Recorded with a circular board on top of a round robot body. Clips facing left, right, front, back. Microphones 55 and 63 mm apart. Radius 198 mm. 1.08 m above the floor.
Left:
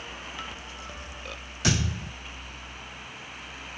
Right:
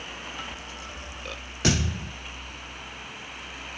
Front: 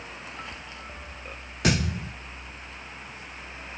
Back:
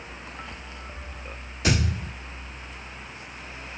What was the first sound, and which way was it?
A thud, 40° right.